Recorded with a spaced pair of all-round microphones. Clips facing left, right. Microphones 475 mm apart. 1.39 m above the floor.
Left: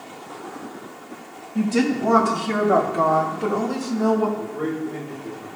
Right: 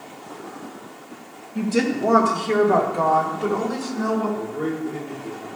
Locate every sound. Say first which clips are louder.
1.6 s a woman speaking: left 1 dB; 10° left (ahead or behind), 1.9 m; by 4.3 s 55° left (ahead or behind), 2.5 m
4.4 s a man speaking: even; centre (ahead or behind), 4 m